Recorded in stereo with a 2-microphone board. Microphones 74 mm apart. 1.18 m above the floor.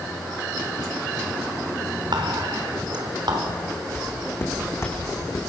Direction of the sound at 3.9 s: 30° left (ahead or behind).